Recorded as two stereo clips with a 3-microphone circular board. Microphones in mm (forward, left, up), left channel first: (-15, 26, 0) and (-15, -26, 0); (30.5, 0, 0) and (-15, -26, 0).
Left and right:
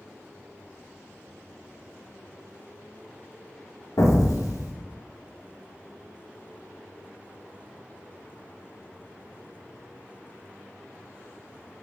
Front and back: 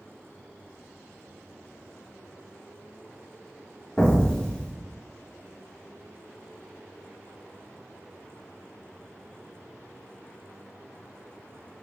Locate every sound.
4.0 s an explosion: 105° left, 0.9 m